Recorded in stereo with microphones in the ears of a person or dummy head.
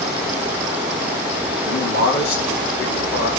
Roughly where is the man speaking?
Left.